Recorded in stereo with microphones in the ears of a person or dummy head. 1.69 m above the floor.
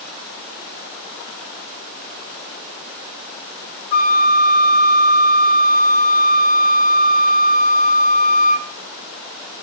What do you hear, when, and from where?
3.9 s a flute: 40° left (ahead or behind), 1.7 m